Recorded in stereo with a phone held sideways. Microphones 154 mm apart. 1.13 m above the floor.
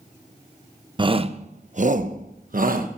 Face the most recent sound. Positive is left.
turn(degrees=-70)  # may be behind; listen again after turning